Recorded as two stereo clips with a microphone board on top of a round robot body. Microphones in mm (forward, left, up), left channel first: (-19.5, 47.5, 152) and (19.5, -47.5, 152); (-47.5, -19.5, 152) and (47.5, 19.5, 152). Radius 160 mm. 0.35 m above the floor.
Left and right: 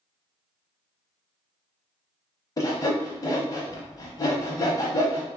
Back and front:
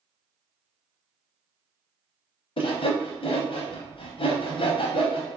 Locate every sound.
2.6 s sawing: 165° left, 0.6 m